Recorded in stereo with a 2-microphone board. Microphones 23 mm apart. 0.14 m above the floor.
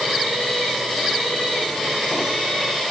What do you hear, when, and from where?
Only background noise.